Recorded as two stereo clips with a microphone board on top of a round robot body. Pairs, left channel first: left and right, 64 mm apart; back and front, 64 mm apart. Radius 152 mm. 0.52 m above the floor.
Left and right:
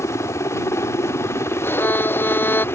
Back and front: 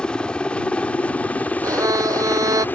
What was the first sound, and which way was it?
A helicopter, 110° left.